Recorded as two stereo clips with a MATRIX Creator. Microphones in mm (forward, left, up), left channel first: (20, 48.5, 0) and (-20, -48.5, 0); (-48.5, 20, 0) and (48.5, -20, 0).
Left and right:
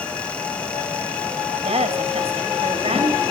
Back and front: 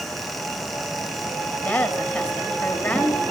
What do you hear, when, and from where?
1.6 s a woman speaking: 125° right, 3 m